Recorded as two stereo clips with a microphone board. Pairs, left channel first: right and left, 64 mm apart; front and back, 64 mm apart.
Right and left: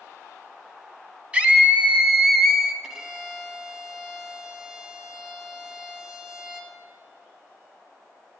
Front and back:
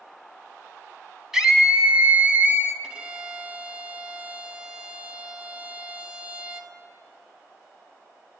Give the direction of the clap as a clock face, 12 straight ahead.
No clap in this recording.